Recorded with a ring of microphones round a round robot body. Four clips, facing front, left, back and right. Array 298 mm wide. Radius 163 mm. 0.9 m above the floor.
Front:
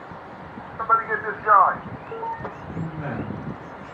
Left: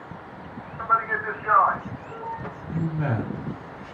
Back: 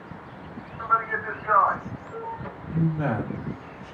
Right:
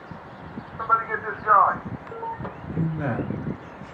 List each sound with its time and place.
0.8 s a man speaking: 25° right, 0.7 m
2.7 s a man speaking: 135° right, 1.4 m